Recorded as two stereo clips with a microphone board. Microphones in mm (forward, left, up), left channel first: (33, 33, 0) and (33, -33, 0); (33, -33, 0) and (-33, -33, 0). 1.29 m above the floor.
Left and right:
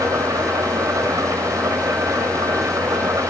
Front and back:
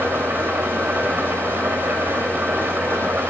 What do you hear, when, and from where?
0.0 s an engine running: 125° right, 3.5 m